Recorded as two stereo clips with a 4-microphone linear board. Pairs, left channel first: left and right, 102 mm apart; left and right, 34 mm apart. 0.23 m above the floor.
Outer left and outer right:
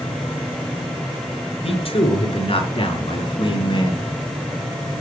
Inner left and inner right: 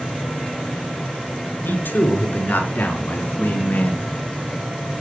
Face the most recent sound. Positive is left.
turn(degrees=50)  # may be behind; listen again after turning